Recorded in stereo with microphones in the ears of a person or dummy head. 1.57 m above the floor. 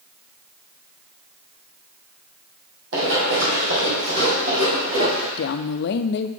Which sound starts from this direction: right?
Running footsteps, at 2.9 s.